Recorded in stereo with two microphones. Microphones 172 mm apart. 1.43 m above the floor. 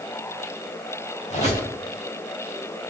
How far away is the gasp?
I don't hear a gasp.